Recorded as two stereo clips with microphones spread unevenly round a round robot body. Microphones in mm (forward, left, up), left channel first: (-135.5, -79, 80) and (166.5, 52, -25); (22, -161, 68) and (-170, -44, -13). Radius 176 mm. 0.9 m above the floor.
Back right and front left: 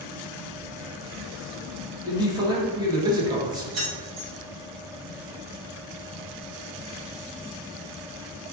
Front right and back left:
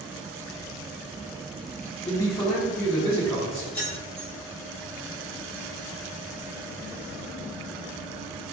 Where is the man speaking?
55° left, 1.0 m.